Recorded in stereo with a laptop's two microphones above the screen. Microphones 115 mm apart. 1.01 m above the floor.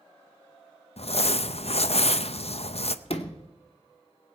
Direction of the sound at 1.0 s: 65° left (ahead or behind).